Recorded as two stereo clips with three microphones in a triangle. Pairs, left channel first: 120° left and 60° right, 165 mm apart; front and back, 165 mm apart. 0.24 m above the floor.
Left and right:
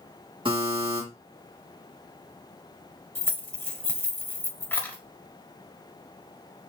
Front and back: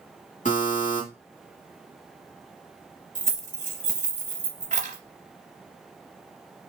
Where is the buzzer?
10° right, 1.6 m.